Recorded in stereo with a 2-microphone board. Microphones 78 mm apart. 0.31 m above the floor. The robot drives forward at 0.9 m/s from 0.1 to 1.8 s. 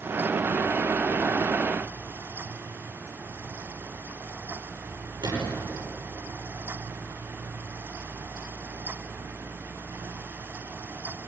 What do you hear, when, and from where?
5.2 s a gunshot: 65° right (ahead or behind), 9 m